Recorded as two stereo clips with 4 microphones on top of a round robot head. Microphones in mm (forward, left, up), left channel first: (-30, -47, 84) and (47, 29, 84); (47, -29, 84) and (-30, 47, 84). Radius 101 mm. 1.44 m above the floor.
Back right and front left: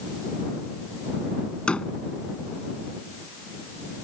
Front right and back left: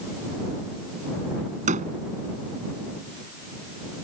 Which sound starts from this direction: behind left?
A door slam, at 1.7 s.